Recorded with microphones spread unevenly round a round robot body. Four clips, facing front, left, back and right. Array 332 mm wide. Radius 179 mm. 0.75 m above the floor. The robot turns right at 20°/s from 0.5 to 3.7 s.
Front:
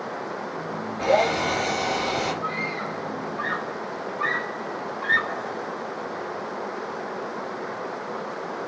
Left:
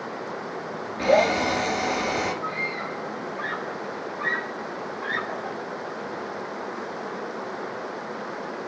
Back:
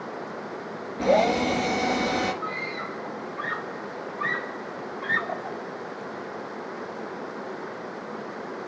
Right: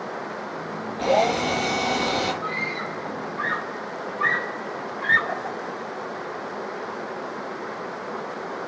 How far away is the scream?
About 4 m.